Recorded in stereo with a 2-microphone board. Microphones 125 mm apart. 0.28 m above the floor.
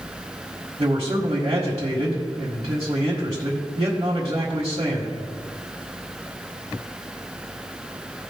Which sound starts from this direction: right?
A man speaking, at 0.8 s.